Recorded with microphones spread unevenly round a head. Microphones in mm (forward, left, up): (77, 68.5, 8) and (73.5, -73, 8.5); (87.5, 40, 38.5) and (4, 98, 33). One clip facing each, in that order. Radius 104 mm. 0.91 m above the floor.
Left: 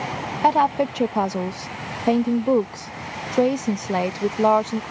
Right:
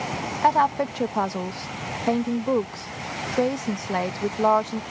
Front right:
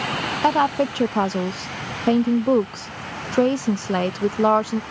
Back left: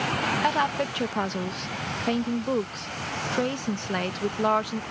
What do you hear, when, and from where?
0.4 s a woman speaking: 20° left